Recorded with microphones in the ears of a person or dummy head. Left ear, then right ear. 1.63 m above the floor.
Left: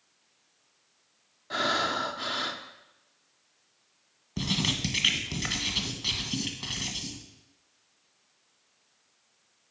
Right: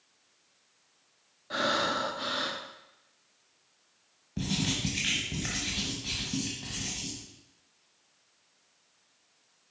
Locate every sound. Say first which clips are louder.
1.5 s breathing: left 1 dB; 10° left (ahead or behind), 0.8 m
4.4 s writing: left 3 dB; 35° left (ahead or behind), 1.3 m